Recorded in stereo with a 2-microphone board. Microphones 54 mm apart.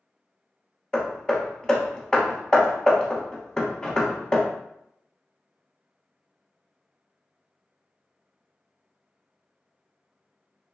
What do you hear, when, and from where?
0.9 s hammering: 20° left (ahead or behind), 0.6 m